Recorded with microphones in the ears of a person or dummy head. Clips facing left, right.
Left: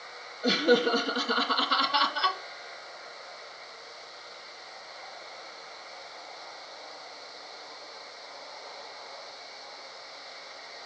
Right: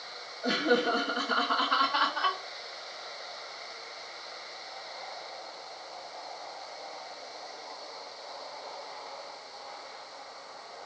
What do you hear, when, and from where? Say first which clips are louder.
0.4 s laughter: left 3 dB; 45° left (ahead or behind), 1.8 m